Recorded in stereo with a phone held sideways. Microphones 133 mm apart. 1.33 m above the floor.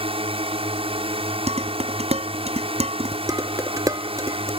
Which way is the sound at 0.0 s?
45° right (ahead or behind).